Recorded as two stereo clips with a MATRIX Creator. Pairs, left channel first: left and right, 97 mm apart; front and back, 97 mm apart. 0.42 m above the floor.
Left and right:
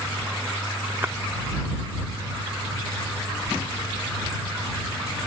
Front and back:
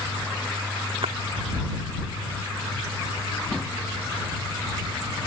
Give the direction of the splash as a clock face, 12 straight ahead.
5 o'clock.